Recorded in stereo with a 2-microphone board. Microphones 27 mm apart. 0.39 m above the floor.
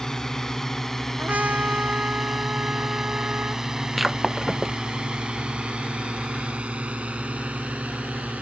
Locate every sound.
0.0 s a drone: 15° left (ahead or behind); by 8.4 s 65° right (ahead or behind)
1.2 s a trumpet: 85° right
4.0 s breaking glass: 5° right (ahead or behind)